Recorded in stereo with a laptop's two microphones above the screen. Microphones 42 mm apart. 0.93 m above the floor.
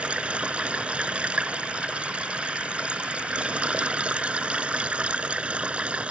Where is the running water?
30° right (ahead or behind).